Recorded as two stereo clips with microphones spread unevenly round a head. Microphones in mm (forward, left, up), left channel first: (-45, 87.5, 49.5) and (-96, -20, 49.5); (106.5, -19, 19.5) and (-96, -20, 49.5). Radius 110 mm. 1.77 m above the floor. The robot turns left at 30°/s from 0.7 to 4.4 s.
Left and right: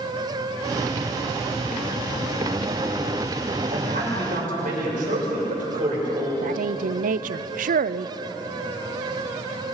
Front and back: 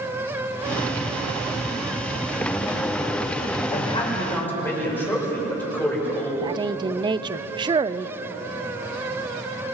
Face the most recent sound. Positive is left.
turn(degrees=-110)